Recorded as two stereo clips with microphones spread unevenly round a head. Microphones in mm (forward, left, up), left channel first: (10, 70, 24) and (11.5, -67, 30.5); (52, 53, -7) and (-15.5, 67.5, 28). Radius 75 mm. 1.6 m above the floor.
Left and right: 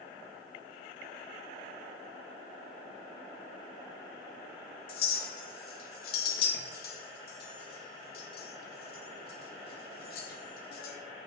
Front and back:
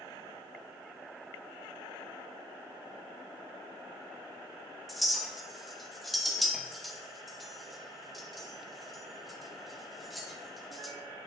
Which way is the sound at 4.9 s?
100° left.